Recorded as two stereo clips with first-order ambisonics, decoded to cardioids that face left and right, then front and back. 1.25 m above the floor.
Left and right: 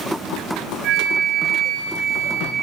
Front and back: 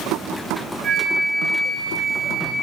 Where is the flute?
125° right, 1.1 m.